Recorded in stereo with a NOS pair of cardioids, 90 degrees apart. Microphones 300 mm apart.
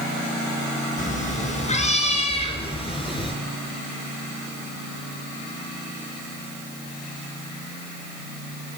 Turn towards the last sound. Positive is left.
turn(degrees=15)